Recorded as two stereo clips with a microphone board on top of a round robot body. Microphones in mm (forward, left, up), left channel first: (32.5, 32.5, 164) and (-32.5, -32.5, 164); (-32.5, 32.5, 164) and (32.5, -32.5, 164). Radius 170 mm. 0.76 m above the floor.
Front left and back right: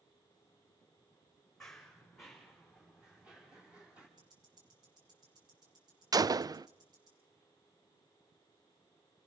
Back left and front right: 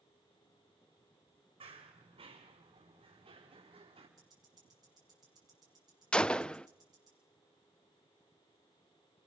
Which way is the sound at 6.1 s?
150° right.